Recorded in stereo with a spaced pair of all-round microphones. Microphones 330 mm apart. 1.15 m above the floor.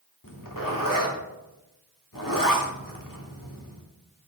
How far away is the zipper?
About 1.9 m.